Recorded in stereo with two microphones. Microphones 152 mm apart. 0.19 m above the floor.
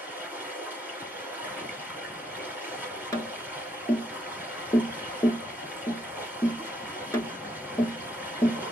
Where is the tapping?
20° left (ahead or behind), 1.0 m.